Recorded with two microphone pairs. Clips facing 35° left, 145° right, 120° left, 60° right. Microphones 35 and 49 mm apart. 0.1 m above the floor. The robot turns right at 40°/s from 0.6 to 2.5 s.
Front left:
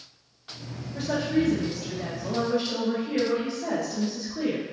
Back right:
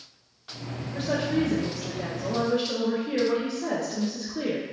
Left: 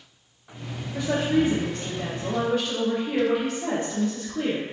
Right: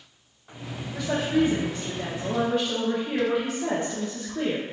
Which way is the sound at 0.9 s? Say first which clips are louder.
Front left 1 dB, left 1 dB; 175° left.